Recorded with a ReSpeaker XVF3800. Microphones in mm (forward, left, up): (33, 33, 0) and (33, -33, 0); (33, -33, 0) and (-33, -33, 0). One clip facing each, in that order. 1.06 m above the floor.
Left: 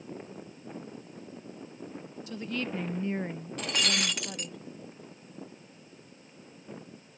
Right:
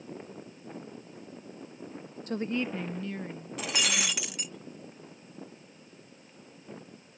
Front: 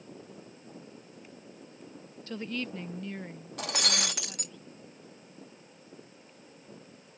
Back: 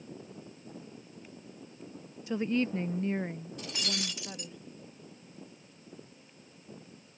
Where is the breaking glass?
5° right.